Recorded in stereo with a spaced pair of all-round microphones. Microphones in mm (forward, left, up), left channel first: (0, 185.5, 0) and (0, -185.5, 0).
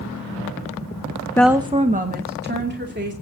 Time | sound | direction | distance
1.4 | a woman speaking | 10° left (ahead or behind) | 0.5 m